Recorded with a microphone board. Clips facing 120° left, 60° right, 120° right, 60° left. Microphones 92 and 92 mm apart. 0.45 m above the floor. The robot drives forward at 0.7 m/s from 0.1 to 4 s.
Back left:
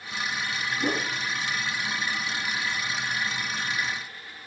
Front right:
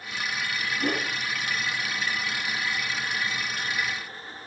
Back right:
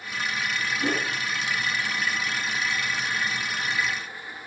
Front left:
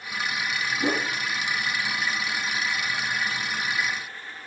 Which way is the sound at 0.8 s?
50° left.